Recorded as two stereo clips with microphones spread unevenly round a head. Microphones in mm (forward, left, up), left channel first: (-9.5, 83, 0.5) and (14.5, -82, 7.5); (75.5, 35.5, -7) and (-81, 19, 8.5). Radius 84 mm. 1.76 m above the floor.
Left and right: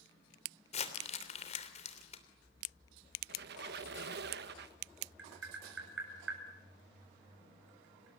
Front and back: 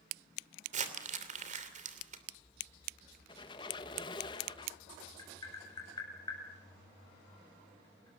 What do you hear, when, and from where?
0.7 s crumpling: 150° left, 3 m
3.3 s a squeak: 60° right, 1.7 m
5.2 s tapping: 65° right, 7.5 m